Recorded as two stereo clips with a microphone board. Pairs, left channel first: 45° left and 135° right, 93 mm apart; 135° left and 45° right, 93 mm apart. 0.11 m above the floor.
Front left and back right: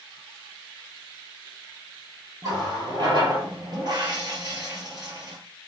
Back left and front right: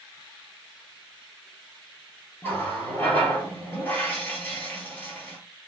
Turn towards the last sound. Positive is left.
turn(degrees=-160)